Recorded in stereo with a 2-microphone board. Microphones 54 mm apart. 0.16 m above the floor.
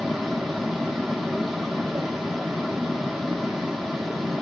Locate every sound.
0.0 s running water: centre (ahead or behind), 0.8 m